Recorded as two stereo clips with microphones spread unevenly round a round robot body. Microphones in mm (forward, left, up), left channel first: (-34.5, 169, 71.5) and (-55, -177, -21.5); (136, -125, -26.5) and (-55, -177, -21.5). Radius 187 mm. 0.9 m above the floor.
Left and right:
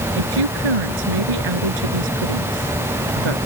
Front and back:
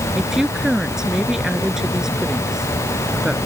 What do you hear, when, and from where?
0.2 s a woman speaking: 80° right